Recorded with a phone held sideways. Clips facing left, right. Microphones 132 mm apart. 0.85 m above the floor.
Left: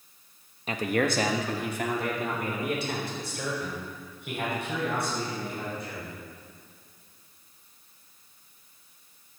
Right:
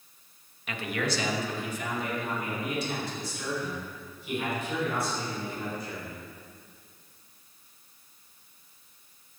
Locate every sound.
0.7 s a man speaking: 35° left (ahead or behind), 1.1 m; by 6.2 s 75° left (ahead or behind), 8 m